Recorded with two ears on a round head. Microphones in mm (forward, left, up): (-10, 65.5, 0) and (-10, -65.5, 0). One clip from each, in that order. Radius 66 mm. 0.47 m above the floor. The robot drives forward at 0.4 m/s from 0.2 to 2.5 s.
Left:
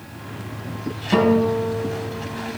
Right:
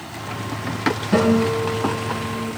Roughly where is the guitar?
Left.